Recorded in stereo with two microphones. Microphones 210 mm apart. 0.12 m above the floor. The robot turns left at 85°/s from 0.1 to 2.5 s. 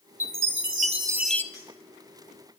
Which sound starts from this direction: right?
A chime, at 0.2 s.